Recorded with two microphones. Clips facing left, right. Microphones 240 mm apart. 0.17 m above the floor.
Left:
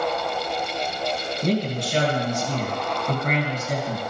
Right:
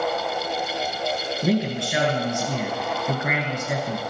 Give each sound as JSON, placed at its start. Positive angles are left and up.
{"t": 1.4, "sound": "a man speaking", "side_deg": -10, "distance_m": 3.0}